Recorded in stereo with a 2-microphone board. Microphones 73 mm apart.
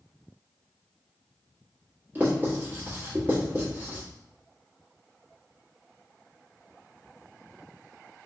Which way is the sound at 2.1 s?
25° right (ahead or behind).